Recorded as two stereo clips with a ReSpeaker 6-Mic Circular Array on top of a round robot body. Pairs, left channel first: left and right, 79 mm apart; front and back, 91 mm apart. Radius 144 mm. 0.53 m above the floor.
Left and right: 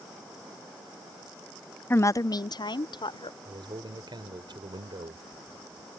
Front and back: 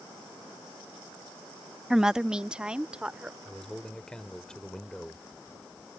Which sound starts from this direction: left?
A woman speaking, at 1.9 s.